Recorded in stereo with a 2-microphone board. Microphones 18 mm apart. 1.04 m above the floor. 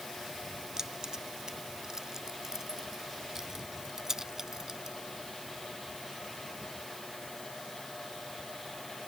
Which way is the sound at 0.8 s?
45° right (ahead or behind).